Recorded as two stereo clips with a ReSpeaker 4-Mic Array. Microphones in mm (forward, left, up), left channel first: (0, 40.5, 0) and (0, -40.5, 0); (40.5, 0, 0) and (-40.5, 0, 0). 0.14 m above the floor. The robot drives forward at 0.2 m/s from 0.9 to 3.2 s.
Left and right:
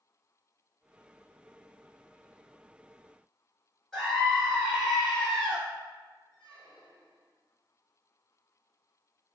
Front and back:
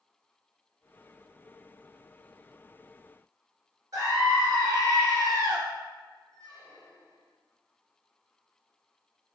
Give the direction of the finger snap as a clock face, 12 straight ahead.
I don't hear a finger snap.